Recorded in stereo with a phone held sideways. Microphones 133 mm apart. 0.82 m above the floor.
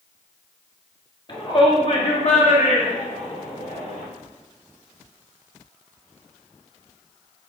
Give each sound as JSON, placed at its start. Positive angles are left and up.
{"t": 1.3, "sound": "a shout", "side_deg": 35, "distance_m": 1.6}